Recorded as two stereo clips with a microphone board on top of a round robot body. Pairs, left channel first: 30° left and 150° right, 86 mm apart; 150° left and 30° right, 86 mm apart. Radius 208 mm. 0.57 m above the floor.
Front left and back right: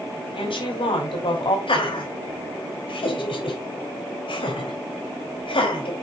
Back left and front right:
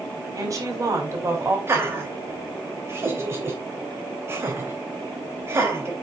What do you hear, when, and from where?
0.3 s a woman speaking: 20° left, 4 m; by 1.6 s 30° left, 4 m
1.7 s laughter: 30° left, 4 m